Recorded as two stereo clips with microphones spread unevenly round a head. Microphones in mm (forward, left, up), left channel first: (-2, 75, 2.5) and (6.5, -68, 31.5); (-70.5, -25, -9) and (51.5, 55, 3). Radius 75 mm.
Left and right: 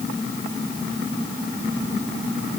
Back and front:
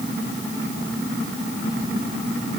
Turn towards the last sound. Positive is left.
No sound to turn to.